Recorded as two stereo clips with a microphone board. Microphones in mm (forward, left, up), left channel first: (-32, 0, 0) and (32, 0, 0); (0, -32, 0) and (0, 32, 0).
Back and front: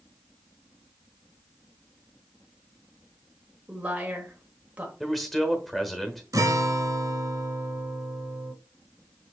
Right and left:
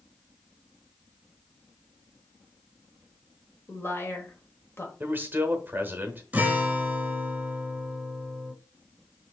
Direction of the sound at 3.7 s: 60° right.